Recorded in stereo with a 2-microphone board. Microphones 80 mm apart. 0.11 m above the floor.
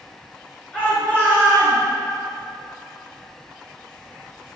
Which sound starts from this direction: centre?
A shout, at 0.7 s.